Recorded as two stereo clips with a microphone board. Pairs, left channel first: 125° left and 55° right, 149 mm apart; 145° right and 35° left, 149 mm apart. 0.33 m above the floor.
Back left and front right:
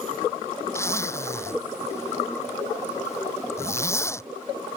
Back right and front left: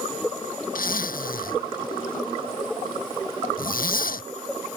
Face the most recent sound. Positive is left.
turn(degrees=-165)